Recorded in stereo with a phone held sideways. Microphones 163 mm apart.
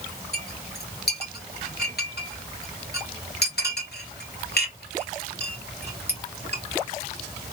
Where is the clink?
75° left (ahead or behind), 1.5 m.